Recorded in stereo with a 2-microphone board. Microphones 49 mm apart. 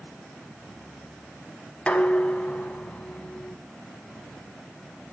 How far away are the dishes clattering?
About 1.5 m.